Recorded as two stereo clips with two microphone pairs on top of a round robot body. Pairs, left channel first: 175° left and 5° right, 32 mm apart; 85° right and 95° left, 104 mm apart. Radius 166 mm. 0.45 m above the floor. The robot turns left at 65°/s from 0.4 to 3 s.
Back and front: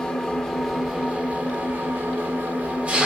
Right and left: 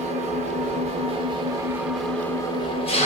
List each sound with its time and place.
0.0 s an engine running: 110° left, 0.9 m; by 3.1 s 60° right, 0.9 m